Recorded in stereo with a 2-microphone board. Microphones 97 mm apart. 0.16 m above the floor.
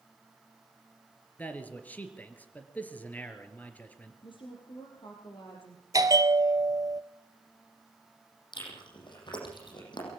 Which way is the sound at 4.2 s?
55° left (ahead or behind).